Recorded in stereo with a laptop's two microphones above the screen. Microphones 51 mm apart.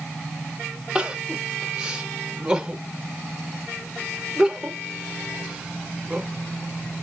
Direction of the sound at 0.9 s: 15° right (ahead or behind).